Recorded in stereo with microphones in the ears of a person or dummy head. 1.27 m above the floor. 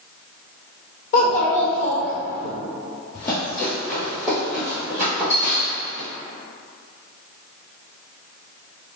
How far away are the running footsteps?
About 1.8 m.